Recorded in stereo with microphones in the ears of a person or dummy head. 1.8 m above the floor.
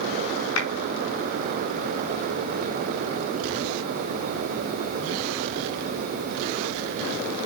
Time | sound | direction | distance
0.6 | a clap | 80° left | 5 m